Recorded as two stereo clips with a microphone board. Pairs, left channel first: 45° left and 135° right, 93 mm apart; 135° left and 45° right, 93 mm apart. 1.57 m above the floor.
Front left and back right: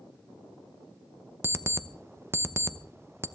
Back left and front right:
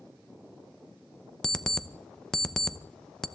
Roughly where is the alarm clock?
Behind right.